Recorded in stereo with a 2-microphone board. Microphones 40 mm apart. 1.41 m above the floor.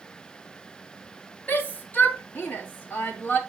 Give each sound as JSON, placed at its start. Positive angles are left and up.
{"t": 1.5, "sound": "a shout", "side_deg": 45, "distance_m": 3.0}